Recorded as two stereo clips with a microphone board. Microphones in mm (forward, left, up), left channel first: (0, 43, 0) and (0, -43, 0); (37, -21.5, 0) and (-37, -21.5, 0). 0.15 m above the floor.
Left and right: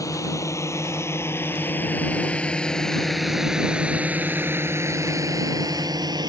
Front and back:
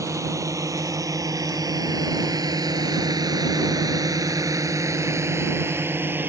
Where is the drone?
135° left; by 6.3 s 120° right.